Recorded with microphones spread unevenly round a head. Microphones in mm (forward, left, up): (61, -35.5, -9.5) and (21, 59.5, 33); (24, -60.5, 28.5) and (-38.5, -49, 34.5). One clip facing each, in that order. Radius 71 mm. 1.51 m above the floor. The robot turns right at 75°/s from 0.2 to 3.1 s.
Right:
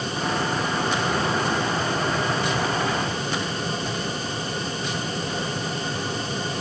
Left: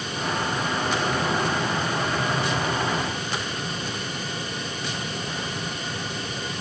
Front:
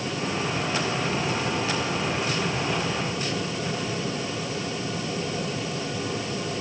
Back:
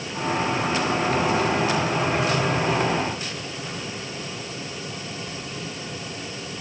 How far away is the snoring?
I don't hear snoring.